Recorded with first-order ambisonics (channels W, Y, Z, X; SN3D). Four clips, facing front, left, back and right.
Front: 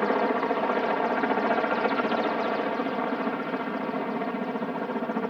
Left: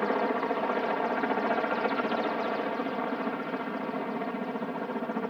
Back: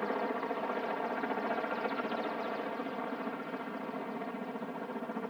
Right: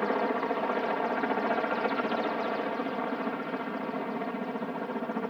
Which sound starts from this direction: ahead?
A helicopter, at 0.0 s.